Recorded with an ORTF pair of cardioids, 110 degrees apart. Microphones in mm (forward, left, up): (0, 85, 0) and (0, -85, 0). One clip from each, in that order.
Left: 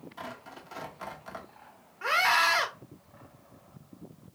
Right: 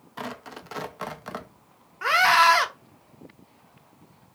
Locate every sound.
0.2 s tearing paper: 40° right, 0.5 m
2.0 s a scream: 30° right, 0.9 m